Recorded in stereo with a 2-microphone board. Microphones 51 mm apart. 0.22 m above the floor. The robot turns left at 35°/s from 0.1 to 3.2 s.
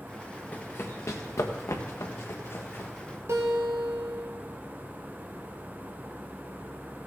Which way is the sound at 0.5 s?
30° left (ahead or behind).